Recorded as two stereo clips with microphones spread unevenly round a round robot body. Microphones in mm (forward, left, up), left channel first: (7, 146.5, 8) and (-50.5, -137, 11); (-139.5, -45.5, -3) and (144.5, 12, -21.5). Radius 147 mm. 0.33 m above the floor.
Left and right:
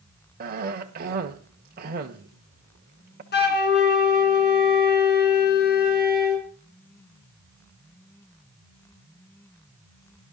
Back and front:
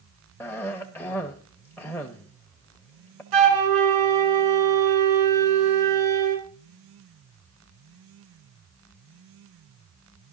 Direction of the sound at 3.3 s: 20° left.